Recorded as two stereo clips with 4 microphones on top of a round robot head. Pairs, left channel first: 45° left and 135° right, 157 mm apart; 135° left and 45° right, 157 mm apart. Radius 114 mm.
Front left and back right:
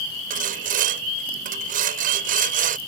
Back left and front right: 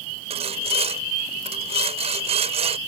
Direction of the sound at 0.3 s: 100° right.